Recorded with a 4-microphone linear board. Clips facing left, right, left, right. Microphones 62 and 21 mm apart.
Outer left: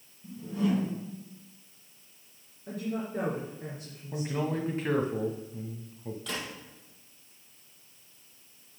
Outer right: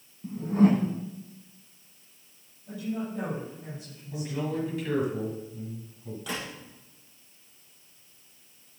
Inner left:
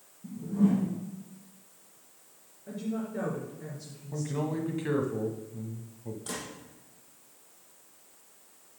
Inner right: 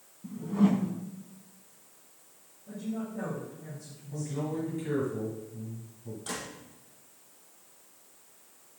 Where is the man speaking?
35° left (ahead or behind), 1.1 m.